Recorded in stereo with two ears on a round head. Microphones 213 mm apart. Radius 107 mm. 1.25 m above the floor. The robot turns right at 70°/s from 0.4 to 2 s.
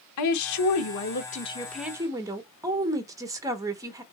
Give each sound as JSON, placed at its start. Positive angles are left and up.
{"t": 0.2, "sound": "a woman speaking", "azimuth_deg": 80, "distance_m": 0.9}